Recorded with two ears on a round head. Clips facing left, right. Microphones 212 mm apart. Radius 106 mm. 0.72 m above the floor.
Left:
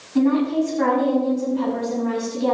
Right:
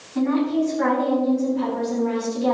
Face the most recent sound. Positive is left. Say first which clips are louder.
# left 2 dB
turn(degrees=50)  # may be behind; listen again after turning